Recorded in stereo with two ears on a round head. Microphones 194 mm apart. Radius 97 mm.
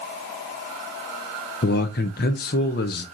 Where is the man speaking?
45° left (ahead or behind), 0.8 m.